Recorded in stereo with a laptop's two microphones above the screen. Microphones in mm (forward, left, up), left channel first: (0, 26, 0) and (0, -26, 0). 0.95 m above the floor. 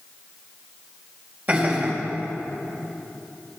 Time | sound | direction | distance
1.5 | laughter | 40° right (ahead or behind) | 5 m